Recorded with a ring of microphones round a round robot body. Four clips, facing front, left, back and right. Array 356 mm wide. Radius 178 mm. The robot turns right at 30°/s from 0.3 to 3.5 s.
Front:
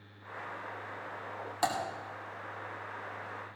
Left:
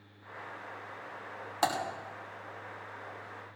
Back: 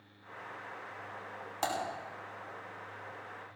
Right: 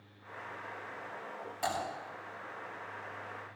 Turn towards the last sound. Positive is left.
turn(degrees=140)